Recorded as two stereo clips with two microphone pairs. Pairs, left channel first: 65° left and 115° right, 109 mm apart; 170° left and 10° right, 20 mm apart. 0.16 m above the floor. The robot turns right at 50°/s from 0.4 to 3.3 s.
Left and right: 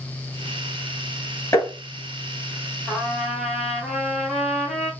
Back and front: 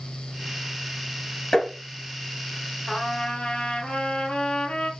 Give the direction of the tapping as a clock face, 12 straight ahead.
8 o'clock.